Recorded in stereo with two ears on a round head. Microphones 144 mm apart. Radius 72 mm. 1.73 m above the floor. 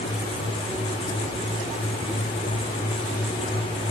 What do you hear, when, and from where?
Only background noise.